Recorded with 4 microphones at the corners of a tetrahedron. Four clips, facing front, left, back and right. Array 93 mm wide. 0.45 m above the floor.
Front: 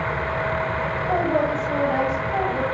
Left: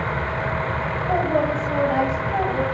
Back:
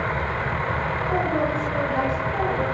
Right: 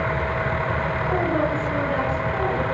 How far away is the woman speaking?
About 10 m.